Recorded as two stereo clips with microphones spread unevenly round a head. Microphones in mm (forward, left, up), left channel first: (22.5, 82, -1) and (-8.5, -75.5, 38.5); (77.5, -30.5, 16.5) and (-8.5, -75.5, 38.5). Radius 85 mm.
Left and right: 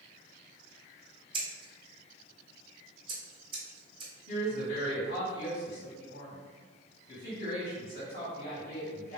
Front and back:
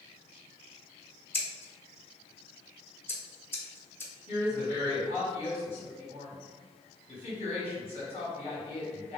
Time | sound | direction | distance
1.3 | scissors | 40° right | 1.0 m
4.3 | a woman speaking | 45° left | 1.7 m